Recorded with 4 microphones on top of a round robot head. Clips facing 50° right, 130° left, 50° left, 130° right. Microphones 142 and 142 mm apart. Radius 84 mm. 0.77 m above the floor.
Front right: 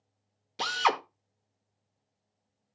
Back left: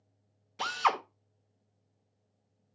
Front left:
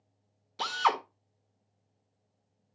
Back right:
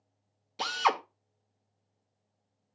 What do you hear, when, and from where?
0.6 s a drill: 65° right, 1.3 m